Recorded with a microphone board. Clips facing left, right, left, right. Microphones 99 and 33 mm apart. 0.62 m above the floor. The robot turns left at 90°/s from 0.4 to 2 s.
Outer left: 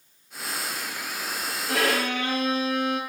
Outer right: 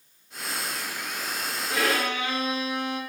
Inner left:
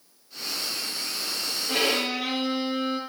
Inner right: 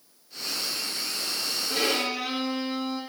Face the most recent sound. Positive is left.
turn(degrees=50)  # may be behind; listen again after turning